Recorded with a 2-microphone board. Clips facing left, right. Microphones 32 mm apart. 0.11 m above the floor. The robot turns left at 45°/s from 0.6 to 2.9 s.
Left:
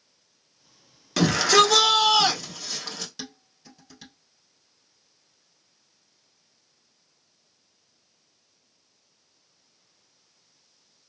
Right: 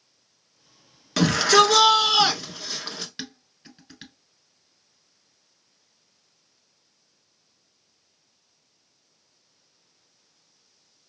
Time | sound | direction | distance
1.2 | a shout | 10° right (ahead or behind) | 1.1 m
3.2 | dishes clattering | 45° right (ahead or behind) | 1.5 m